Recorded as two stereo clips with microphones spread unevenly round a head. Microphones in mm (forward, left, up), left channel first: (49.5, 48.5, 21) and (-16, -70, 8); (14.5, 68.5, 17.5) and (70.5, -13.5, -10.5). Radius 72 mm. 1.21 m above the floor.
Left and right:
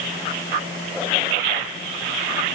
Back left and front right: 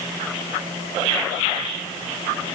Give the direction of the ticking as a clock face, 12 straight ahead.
No ticking in this recording.